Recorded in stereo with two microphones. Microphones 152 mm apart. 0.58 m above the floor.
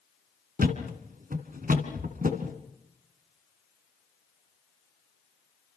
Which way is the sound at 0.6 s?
65° right (ahead or behind).